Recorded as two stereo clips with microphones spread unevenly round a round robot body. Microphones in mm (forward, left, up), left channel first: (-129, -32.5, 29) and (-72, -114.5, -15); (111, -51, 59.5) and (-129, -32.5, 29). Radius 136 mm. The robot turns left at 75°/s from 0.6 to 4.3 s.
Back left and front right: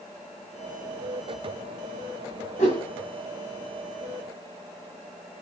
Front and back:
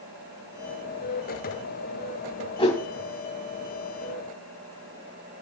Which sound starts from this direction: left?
A whoosh, at 2.6 s.